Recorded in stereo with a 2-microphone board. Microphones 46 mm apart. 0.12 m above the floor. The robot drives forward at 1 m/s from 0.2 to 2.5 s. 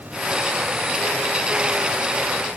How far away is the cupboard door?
I don't hear a cupboard door.